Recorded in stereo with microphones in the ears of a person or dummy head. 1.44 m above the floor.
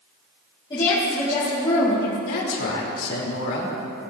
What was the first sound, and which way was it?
A woman speaking, 25° left (ahead or behind).